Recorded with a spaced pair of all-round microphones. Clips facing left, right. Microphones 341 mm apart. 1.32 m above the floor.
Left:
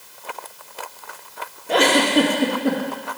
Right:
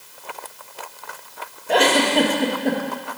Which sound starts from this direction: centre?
A giggle, at 1.7 s.